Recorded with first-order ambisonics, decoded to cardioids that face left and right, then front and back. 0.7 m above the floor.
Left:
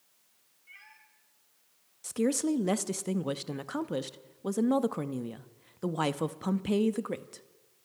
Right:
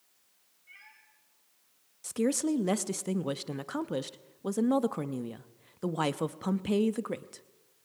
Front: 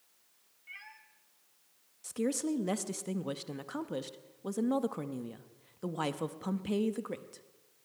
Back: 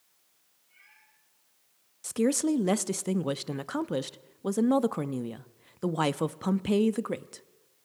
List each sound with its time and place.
0.7 s a cat meowing: 5° left, 3.5 m
2.0 s a woman speaking: 175° right, 0.6 m